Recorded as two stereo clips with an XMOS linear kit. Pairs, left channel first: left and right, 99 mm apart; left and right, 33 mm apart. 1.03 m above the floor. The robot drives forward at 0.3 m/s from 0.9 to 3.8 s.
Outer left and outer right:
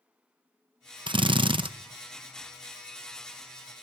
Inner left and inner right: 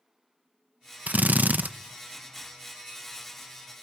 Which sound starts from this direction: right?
A drill, at 1.1 s.